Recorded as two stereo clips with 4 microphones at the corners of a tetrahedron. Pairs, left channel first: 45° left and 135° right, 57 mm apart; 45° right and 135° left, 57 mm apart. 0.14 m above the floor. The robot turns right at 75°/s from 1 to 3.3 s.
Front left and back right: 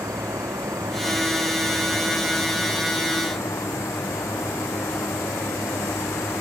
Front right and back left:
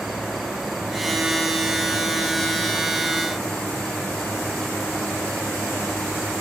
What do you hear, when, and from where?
0.0 s an insect: 135° right; by 6.4 s 35° left